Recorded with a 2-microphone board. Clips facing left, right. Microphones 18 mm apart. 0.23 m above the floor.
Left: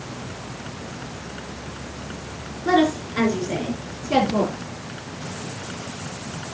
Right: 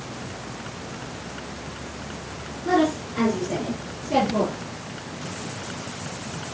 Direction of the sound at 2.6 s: 70° left (ahead or behind).